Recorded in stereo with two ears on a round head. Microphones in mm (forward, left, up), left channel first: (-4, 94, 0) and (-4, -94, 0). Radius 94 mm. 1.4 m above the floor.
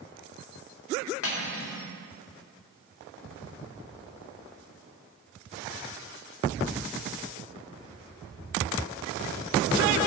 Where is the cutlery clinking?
70° left (ahead or behind), 2 m.